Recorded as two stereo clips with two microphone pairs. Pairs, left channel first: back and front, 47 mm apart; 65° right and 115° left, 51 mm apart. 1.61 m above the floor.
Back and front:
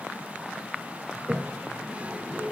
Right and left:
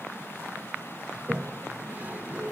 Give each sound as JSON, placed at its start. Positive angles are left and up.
{"t": 1.1, "sound": "a toilet flushing", "azimuth_deg": 60, "distance_m": 1.4}